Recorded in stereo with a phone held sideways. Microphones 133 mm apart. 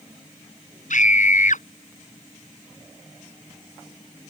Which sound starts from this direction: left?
A scream, at 0.9 s.